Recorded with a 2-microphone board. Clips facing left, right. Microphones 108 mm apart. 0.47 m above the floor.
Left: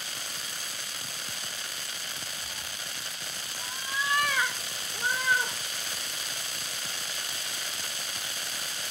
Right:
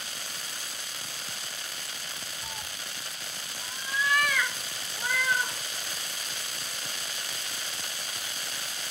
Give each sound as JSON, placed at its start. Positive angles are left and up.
{"t": 2.4, "sound": "a cat meowing", "side_deg": -50, "distance_m": 0.7}